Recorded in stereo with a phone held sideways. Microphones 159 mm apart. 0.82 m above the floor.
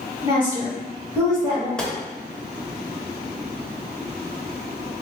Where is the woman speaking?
25° right (ahead or behind), 1.7 m; by 1.7 s 15° right (ahead or behind), 1.0 m.